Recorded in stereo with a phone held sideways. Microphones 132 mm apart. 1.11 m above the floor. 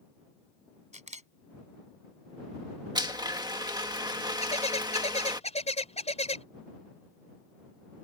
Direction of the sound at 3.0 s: 30° right (ahead or behind).